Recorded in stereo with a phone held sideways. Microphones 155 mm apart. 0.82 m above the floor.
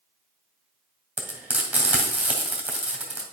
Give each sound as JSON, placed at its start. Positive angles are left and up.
{"t": 1.2, "sound": "frying", "side_deg": -10, "distance_m": 1.9}